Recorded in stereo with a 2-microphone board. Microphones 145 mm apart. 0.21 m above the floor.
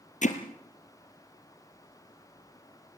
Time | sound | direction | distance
0.2 | hammering | 60° left (ahead or behind) | 2.5 m